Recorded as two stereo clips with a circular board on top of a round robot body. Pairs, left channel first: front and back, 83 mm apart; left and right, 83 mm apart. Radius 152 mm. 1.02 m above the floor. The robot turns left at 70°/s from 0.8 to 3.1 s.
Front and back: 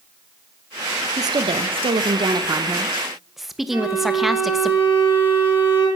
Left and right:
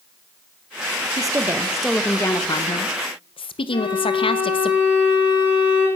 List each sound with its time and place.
1.2 s a woman speaking: 130° right, 1.1 m; by 4.7 s 90° left, 1.1 m
3.7 s a violin: 110° left, 5 m